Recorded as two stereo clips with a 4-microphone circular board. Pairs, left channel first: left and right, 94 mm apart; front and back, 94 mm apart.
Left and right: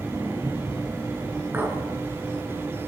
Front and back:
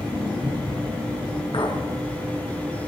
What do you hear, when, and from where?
1.5 s a clink: 20° right, 3 m